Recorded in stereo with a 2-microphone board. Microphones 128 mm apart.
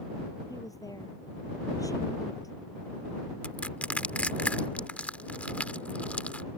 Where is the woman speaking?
30° left (ahead or behind).